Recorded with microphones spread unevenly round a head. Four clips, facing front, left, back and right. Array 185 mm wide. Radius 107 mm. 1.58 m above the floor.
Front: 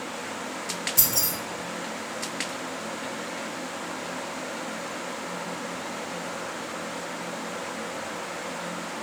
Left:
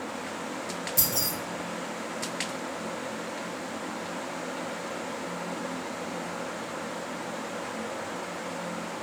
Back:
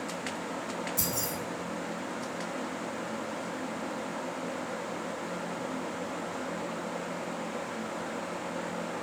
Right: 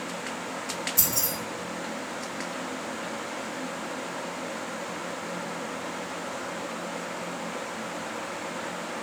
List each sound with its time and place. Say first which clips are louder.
1.0 s keys jangling: even, front 1 dB; 40° left, 0.9 m